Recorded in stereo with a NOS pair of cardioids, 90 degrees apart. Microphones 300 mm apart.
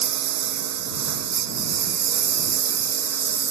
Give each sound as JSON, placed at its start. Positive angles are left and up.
{"t": 0.0, "sound": "a lawn mower", "azimuth_deg": -70}